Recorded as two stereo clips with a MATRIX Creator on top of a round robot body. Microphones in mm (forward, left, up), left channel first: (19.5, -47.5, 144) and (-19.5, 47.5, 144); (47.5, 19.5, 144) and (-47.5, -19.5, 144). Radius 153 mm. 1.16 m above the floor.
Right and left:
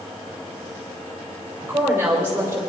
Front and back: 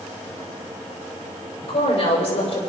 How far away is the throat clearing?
No throat clearing in this recording.